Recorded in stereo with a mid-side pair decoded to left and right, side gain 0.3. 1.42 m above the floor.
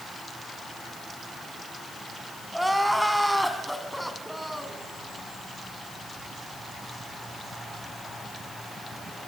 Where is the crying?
5° right, 3.5 m.